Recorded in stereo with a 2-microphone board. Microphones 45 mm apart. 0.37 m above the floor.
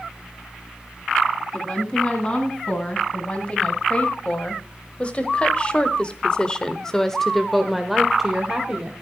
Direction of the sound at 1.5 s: 25° left (ahead or behind).